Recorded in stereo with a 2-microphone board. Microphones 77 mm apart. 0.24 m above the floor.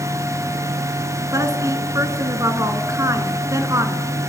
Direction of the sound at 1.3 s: 40° right (ahead or behind).